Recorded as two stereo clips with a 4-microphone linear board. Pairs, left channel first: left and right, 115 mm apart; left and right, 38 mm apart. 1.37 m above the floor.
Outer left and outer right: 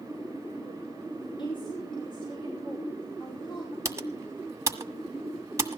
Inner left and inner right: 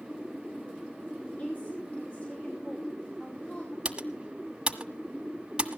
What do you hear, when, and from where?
1.2 s a woman speaking: 45° left (ahead or behind), 5 m
3.9 s typing on a keyboard: 25° right (ahead or behind), 1.4 m